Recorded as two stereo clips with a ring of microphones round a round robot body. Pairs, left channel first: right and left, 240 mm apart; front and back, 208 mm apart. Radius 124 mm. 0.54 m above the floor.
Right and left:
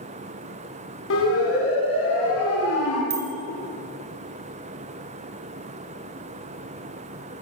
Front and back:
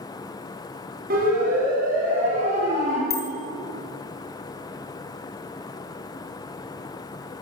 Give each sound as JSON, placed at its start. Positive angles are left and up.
{"t": 1.1, "sound": "a siren", "azimuth_deg": -125, "distance_m": 5.0}
{"t": 3.1, "sound": "a bicycle bell", "azimuth_deg": 40, "distance_m": 4.5}